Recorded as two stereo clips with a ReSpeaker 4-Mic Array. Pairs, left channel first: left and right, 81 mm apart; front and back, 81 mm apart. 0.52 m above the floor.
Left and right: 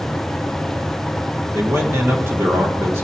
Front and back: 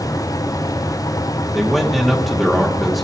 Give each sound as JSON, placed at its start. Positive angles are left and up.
{"t": 1.5, "sound": "a man speaking", "azimuth_deg": -95, "distance_m": 1.2}